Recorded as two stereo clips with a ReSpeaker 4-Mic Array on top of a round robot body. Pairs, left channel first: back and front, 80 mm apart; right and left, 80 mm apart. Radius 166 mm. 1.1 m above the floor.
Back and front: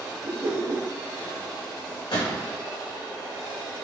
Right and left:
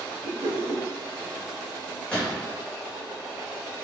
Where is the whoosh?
40° left, 1.8 m.